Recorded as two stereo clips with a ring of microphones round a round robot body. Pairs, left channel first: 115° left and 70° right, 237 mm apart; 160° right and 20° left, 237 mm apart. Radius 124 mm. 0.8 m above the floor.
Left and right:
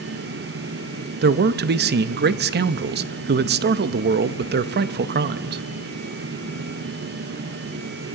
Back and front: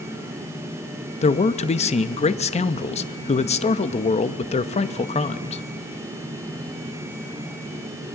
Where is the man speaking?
100° right, 0.7 m.